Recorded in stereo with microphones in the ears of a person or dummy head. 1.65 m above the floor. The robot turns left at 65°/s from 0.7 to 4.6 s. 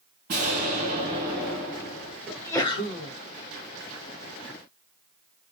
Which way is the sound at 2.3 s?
Straight behind.